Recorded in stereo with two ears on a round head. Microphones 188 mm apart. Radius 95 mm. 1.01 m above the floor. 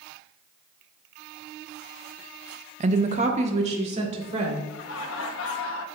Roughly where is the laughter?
Left.